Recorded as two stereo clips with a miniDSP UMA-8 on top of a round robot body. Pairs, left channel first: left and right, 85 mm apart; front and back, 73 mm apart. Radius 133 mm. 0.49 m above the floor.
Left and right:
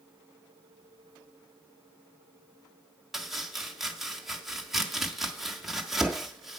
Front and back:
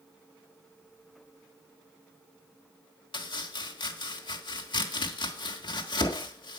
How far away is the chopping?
About 1.5 m.